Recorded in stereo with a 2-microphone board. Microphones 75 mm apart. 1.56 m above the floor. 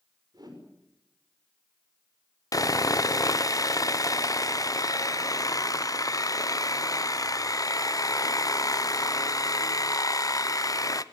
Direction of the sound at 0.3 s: 60° right (ahead or behind).